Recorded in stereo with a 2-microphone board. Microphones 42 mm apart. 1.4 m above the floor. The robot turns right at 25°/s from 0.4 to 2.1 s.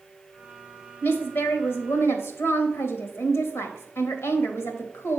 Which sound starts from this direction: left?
A woman speaking, at 1.0 s.